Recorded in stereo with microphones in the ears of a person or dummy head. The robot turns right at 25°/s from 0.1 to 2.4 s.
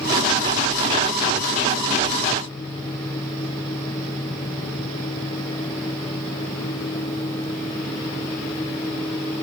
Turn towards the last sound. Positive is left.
No sound to turn to.